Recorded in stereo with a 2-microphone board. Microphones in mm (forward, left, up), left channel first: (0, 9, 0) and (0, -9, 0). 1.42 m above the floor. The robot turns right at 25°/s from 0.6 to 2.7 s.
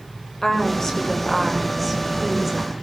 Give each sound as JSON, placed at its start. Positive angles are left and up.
{"t": 0.4, "sound": "a woman speaking", "azimuth_deg": 150, "distance_m": 7.5}